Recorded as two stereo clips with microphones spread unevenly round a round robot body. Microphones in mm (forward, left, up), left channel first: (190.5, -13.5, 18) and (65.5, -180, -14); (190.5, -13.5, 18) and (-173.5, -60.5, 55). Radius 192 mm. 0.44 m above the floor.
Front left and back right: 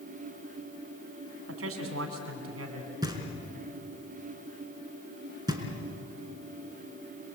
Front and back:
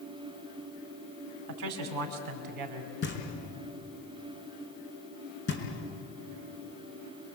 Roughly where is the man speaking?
Behind right.